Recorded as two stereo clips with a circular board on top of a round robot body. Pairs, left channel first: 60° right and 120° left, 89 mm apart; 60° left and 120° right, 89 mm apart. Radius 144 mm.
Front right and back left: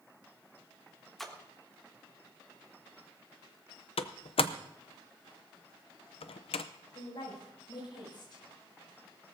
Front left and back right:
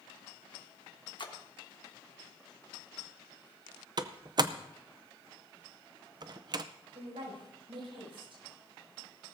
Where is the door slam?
75° right, 0.6 m.